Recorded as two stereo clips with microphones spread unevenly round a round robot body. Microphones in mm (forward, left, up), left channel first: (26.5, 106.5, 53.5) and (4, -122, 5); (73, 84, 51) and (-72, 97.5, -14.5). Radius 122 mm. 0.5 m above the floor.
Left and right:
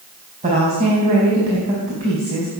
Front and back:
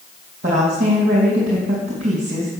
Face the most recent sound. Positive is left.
turn(degrees=-155)